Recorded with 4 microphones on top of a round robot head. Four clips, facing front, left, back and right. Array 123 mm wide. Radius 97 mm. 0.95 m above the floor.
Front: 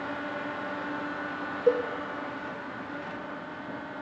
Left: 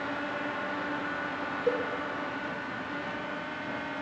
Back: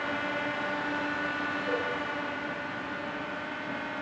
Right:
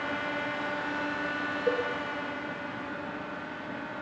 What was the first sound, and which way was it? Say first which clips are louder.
A cowbell: even, front 10 dB; 15° left.